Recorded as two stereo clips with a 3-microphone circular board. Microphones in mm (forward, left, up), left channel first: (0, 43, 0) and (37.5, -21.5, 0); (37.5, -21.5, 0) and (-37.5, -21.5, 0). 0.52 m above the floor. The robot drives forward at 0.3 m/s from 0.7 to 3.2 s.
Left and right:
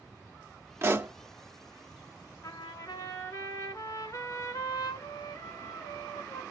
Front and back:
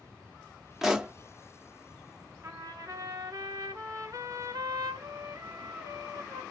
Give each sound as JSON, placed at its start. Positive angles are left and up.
{"t": 0.8, "sound": "a pop", "azimuth_deg": -95, "distance_m": 0.6}
{"t": 2.4, "sound": "a trumpet", "azimuth_deg": 140, "distance_m": 0.7}